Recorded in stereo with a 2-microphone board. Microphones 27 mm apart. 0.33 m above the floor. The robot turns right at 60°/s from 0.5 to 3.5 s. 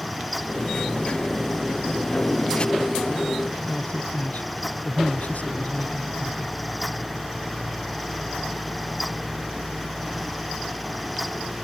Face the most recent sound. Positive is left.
turn(degrees=70)  # may be behind; listen again after turning